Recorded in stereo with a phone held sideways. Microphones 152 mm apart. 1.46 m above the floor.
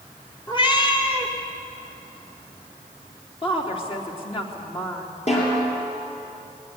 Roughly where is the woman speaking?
Left.